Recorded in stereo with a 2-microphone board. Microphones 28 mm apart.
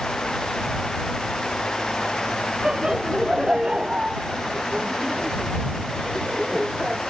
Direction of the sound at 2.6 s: 25° right (ahead or behind).